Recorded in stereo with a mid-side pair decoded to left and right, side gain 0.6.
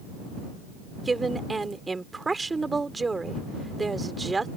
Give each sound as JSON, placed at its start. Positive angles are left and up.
{"t": 1.0, "sound": "a woman speaking", "azimuth_deg": -20}